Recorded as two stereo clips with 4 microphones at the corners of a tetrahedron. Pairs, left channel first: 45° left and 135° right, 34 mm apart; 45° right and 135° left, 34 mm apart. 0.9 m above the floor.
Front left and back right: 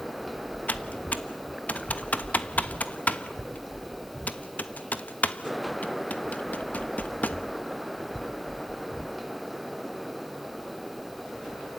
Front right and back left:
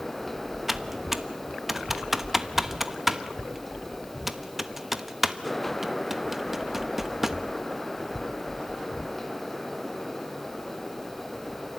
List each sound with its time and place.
0.7 s typing on a keyboard: 55° left, 1.0 m